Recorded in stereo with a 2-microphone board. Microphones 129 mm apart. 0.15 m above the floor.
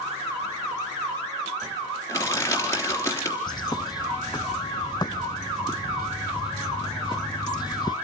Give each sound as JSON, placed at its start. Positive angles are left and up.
{"t": 2.1, "sound": "crushing", "side_deg": 20, "distance_m": 3.5}
{"t": 3.5, "sound": "a bird", "side_deg": 35, "distance_m": 0.5}